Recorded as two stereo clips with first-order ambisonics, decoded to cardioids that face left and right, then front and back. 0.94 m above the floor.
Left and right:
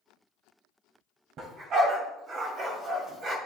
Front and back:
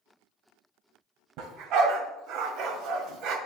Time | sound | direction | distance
1.4 | a dog barking | 140° right | 2 m